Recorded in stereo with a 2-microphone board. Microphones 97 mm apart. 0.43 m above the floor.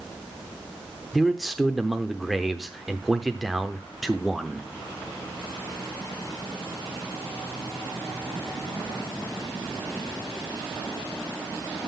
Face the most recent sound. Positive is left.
turn(degrees=0)  # may be behind; listen again after turning